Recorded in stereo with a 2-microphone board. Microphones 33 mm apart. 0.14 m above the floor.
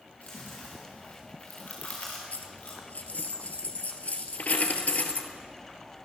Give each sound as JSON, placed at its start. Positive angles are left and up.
{"t": 0.2, "sound": "chewing", "side_deg": 45, "distance_m": 4.0}
{"t": 2.3, "sound": "a dropped coin", "side_deg": 55, "distance_m": 1.4}